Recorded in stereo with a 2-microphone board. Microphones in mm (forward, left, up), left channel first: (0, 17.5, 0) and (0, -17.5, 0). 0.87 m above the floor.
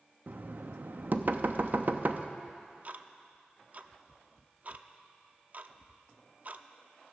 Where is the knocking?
55° right (ahead or behind), 0.6 m.